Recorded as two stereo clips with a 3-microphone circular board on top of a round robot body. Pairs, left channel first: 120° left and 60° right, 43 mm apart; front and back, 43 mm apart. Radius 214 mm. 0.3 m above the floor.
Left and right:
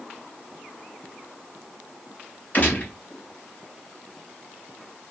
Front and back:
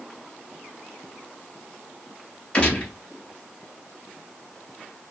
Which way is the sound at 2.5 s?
65° left.